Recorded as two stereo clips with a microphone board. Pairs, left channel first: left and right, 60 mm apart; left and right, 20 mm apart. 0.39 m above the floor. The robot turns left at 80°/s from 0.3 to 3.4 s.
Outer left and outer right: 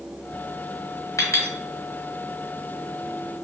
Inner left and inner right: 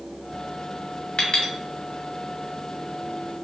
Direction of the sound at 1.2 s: 65° left (ahead or behind).